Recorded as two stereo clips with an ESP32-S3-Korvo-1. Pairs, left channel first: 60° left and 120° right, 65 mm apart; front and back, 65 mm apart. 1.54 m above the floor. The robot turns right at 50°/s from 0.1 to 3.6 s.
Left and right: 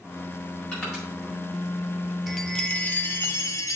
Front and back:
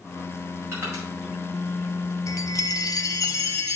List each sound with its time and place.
0.7 s crushing: 130° left, 5 m; by 1.0 s 145° left, 5 m
2.3 s a chime: 35° right, 0.8 m; by 3.8 s 30° left, 0.8 m